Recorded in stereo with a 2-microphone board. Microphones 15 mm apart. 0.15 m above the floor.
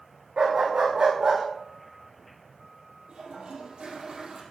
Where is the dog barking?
85° right, 5.5 m.